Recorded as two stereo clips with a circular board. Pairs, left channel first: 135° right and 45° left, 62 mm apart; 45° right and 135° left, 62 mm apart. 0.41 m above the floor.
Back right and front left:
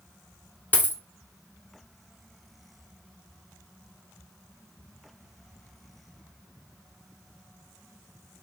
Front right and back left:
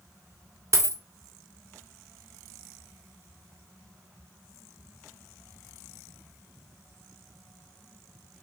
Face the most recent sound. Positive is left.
turn(degrees=165)